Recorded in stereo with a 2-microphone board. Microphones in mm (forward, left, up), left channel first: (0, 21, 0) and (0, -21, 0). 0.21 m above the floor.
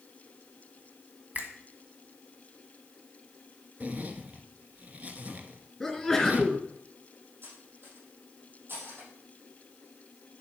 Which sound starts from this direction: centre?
A sneeze, at 5.8 s.